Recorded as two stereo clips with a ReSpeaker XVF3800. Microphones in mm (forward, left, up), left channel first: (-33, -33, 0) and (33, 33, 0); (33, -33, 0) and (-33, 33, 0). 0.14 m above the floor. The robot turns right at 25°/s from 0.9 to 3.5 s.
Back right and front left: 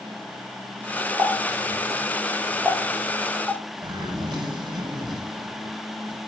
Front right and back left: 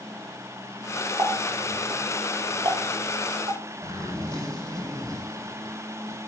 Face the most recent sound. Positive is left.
turn(degrees=80)